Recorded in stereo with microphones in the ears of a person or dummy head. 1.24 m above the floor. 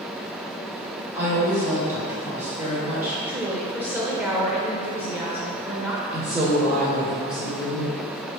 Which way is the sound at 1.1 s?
10° right (ahead or behind).